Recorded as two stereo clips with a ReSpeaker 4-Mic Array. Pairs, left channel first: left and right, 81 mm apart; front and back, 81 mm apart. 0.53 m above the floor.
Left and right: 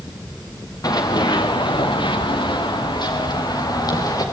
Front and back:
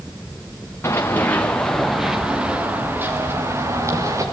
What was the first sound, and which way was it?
Running footsteps, 55° left.